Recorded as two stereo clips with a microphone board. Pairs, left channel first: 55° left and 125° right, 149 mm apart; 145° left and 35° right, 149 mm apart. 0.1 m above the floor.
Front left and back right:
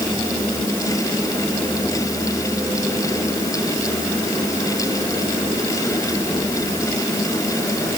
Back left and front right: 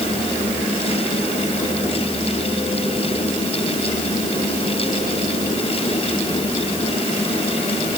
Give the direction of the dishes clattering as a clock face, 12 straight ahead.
No dishes clattering in this recording.